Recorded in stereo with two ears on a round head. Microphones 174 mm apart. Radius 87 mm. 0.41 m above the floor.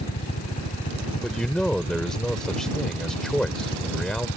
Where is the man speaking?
5° left (ahead or behind).